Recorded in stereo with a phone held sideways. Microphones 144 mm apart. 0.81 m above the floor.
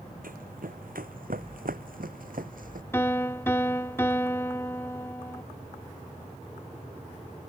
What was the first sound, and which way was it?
Running footsteps, 75° right (ahead or behind).